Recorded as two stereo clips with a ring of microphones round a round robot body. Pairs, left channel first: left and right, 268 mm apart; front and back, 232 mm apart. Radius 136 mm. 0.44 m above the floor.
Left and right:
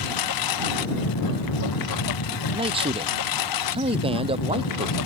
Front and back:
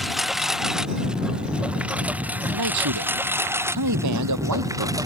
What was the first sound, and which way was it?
A lawn mower, 90° left.